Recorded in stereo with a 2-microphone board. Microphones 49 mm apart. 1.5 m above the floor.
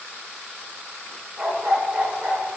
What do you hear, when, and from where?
1.4 s a dog barking: 20° right (ahead or behind), 3 m; by 2.6 s 25° right (ahead or behind), 2.5 m